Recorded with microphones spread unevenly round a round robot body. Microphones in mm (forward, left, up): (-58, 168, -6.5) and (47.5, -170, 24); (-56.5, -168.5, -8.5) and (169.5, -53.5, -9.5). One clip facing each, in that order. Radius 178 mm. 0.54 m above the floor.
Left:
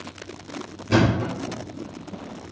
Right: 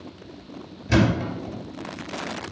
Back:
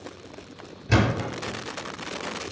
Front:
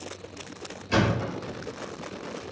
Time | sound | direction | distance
0.9 | a thud | 140° right | 3 m